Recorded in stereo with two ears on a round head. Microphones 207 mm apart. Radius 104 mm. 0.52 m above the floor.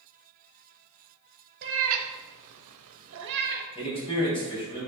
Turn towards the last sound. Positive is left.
turn(degrees=25)  # may be behind; listen again after turning